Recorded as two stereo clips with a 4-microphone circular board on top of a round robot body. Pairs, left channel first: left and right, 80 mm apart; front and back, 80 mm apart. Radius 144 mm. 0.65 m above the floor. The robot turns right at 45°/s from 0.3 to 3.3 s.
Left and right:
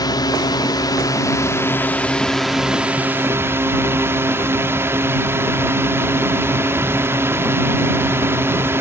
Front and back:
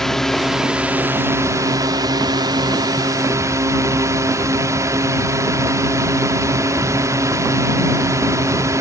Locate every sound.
0.0 s a drone: 85° left; by 8.8 s 140° right